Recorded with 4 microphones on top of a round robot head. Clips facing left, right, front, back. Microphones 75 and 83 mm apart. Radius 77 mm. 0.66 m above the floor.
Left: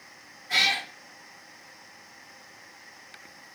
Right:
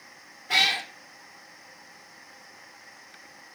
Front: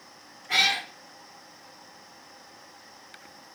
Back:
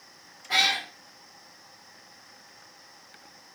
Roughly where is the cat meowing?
Right.